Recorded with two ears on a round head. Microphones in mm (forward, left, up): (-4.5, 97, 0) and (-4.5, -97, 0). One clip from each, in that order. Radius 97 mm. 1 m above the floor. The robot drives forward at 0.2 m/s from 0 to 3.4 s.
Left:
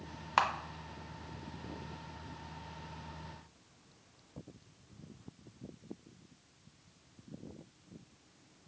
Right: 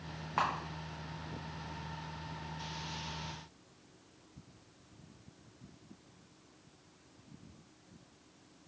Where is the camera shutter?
70° left (ahead or behind), 0.6 m.